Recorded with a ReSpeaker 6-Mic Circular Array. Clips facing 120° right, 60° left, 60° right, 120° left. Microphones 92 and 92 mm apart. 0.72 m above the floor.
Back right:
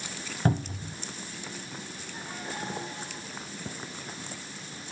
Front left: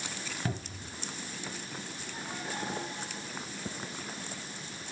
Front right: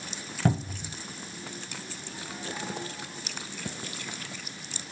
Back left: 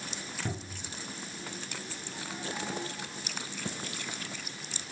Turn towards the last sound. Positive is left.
turn(degrees=-75)